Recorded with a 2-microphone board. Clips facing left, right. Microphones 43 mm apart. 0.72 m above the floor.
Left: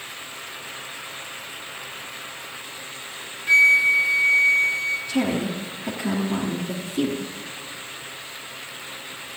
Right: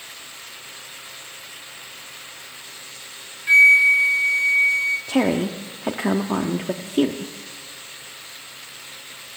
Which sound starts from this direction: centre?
A flute, at 3.5 s.